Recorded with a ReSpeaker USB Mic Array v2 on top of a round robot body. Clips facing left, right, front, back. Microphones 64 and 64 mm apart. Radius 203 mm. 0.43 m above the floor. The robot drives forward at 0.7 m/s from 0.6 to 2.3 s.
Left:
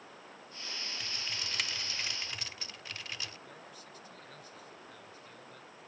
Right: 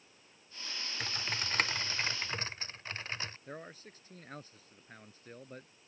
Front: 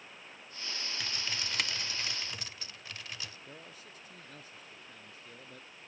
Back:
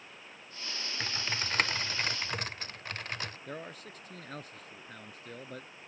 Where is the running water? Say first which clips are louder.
Left 13 dB, even; 90° left; by 5.9 s 100° left.